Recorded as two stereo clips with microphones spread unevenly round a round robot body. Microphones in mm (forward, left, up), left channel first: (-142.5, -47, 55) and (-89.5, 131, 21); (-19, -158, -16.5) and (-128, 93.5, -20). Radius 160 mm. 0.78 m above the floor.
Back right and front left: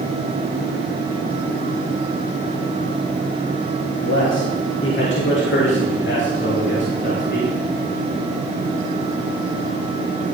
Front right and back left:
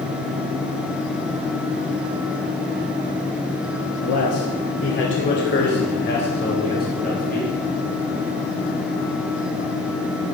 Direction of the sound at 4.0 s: 80° right.